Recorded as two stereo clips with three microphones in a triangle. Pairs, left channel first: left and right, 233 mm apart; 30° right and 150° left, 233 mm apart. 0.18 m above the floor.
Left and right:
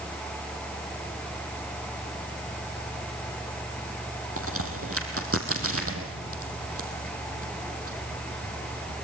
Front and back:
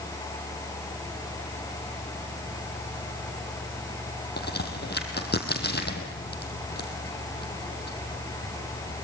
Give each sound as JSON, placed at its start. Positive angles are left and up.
{"t": 4.4, "sound": "a crack", "azimuth_deg": -75, "distance_m": 2.5}